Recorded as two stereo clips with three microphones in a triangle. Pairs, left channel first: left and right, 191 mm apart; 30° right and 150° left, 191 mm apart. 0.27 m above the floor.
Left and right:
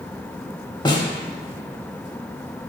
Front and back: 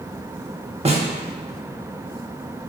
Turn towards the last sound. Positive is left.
turn(degrees=135)